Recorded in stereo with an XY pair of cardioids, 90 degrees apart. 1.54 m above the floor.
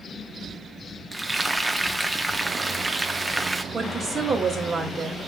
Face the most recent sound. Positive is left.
turn(degrees=-50)